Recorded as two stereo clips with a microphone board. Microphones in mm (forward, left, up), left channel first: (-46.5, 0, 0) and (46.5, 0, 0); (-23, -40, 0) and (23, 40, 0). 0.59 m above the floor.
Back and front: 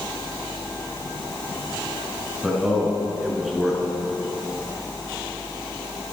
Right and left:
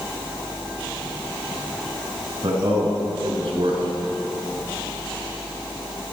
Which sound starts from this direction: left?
A man speaking, at 2.4 s.